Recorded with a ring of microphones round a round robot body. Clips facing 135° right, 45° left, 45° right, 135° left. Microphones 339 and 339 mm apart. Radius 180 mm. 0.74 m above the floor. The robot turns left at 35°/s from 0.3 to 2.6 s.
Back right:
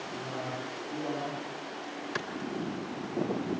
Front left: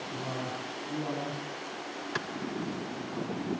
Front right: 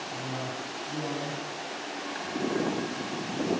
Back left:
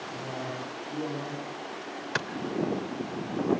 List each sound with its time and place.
0.1 s a man speaking: 20° left, 7.5 m; by 1.4 s 20° right, 7.5 m
2.1 s a clap: 135° left, 2 m; by 2.3 s 130° left, 2 m